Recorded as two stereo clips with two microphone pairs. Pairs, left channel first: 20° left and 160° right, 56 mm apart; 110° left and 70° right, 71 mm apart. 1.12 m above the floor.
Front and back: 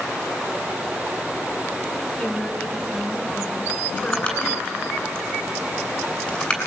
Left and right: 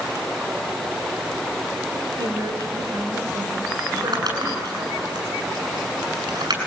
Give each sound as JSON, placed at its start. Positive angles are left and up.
{"t": 2.2, "sound": "a woman speaking", "azimuth_deg": -50, "distance_m": 4.5}
{"t": 3.9, "sound": "crumpling", "azimuth_deg": -45, "distance_m": 7.0}